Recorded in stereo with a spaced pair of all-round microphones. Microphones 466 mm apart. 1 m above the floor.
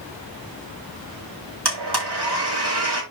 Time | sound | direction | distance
1.6 | a blender | 55° right (ahead or behind) | 5 m